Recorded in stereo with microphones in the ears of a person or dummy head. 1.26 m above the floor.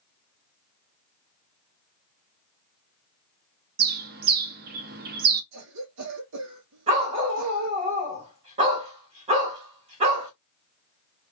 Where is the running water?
No running water in this recording.